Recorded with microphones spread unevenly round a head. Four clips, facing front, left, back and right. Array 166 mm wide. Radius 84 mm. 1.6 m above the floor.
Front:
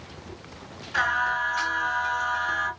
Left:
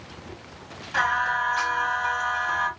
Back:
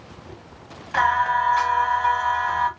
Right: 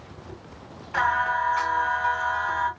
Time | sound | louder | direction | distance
0.9 | singing | right 1 dB, back 6 dB | straight behind | 2.0 m